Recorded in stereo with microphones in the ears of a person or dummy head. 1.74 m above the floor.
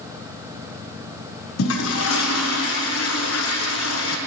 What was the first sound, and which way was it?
A toilet flushing, 85° left.